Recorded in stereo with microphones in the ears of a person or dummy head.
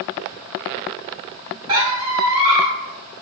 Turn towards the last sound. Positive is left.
turn(degrees=-25)  # may be behind; listen again after turning